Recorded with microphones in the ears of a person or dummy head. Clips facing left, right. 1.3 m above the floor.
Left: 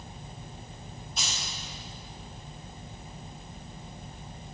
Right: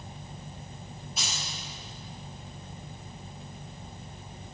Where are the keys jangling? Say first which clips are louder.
Even; 5° right (ahead or behind), 2.5 m.